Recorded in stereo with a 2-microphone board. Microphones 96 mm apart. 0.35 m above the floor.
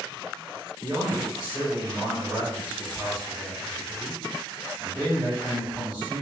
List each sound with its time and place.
0.8 s a man speaking: 15° right (ahead or behind), 1.5 m